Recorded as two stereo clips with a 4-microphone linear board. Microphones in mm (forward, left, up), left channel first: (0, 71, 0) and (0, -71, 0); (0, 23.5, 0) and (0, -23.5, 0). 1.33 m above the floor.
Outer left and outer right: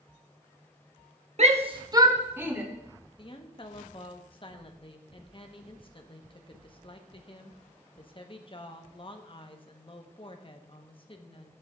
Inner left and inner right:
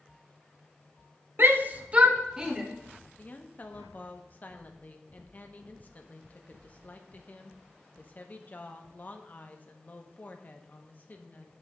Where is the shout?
50° right (ahead or behind), 0.7 m; by 2.6 s 10° right (ahead or behind), 1.8 m.